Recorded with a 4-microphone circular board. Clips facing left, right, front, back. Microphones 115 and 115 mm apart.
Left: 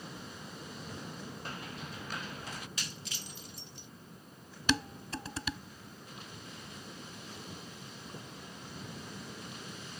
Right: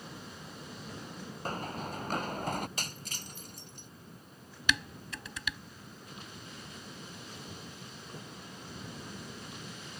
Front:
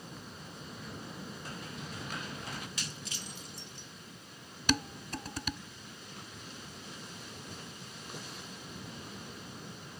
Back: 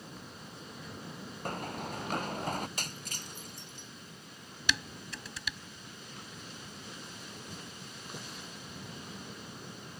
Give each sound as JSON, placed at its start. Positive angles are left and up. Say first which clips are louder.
{"t": 1.4, "sound": "running footsteps", "louder": "right 11 dB, back 6 dB", "azimuth_deg": -140}
{"t": 2.8, "sound": "breaking glass", "louder": "right 2 dB, back 1 dB", "azimuth_deg": -135}
{"t": 4.7, "sound": "dishes clattering", "louder": "left 2 dB, front 4 dB", "azimuth_deg": 40}